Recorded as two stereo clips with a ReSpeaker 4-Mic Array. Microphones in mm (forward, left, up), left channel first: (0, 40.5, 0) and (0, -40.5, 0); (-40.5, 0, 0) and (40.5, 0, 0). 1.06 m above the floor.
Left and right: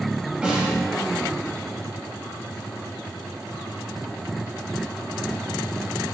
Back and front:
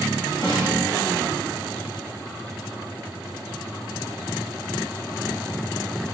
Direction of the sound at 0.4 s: 170° right.